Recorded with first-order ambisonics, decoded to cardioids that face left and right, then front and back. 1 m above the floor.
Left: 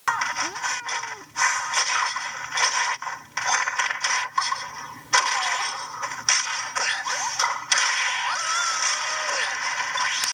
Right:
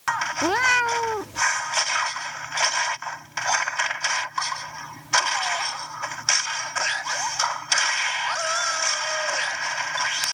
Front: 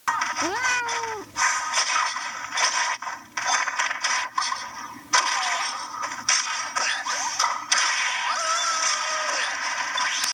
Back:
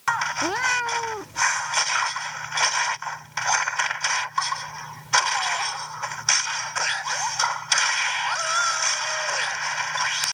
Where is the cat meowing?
95° right.